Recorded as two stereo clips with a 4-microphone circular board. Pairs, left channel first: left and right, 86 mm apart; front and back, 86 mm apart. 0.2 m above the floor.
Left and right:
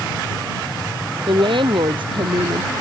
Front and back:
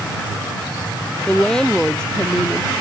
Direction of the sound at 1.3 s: 80° right.